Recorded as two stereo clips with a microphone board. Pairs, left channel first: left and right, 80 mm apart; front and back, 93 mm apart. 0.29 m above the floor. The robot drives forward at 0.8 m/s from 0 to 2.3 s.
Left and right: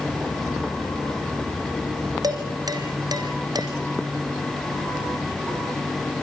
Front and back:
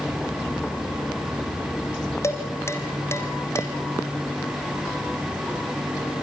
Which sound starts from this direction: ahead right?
Dishes clattering, at 2.2 s.